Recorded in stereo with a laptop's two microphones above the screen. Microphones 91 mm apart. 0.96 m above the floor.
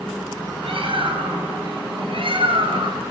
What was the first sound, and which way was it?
A bird, 75° right (ahead or behind).